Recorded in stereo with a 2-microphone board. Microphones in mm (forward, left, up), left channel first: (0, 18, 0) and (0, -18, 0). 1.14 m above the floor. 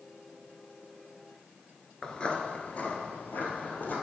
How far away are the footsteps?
About 1.1 m.